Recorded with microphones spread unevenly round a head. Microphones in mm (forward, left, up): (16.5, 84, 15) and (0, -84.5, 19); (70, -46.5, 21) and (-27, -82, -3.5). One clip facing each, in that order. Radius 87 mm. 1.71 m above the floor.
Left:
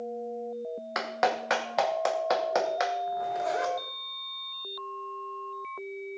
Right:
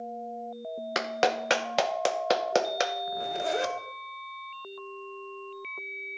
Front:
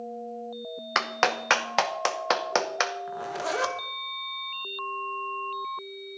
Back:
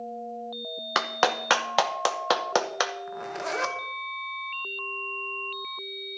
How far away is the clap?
About 0.9 m.